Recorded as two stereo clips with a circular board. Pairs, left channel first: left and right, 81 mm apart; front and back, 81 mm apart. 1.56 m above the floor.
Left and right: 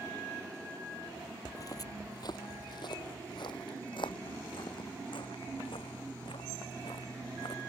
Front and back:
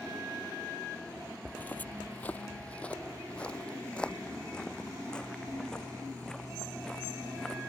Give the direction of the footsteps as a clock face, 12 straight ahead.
10 o'clock.